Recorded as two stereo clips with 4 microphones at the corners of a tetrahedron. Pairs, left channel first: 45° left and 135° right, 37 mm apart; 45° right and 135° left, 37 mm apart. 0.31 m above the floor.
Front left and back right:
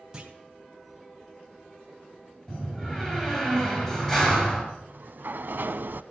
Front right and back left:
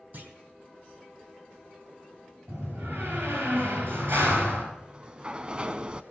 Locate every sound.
0.1 s a clunk: 155° left, 2.5 m
2.5 s a door slam: 115° left, 4.5 m
4.8 s a sliding door: 165° right, 0.6 m